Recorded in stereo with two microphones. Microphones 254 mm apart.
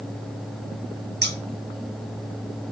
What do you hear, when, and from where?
1.2 s scissors: 40° right (ahead or behind), 0.6 m